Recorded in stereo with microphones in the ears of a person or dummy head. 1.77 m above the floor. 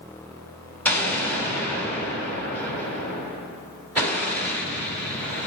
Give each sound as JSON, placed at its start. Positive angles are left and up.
{"t": 0.8, "sound": "an explosion", "side_deg": 15, "distance_m": 5.0}